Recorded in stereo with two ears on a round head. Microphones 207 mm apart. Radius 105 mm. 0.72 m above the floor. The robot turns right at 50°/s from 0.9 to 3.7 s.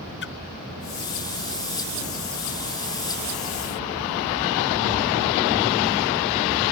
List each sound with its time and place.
0.2 s a splash: 50° left (ahead or behind)